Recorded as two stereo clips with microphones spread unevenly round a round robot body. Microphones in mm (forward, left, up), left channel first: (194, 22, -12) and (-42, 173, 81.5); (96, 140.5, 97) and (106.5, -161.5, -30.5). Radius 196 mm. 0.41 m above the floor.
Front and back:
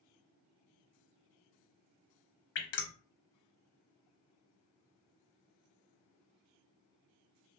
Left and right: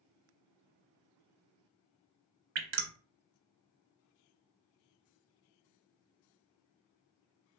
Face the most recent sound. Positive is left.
turn(degrees=-40)